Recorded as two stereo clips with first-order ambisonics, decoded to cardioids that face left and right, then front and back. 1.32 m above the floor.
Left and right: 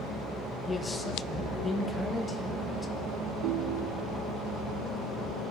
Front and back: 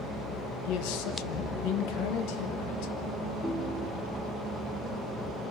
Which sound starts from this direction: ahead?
A man speaking, at 0.7 s.